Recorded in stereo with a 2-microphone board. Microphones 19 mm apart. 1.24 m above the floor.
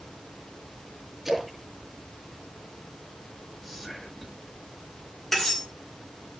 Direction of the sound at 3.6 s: Centre (ahead or behind).